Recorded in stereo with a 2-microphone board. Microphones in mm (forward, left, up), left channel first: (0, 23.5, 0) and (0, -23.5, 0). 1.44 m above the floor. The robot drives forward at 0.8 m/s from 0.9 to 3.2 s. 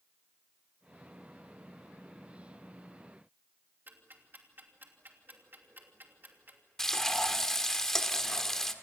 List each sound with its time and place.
3.9 s ticking: 45° right (ahead or behind), 3 m
6.8 s frying: 10° left (ahead or behind), 1.6 m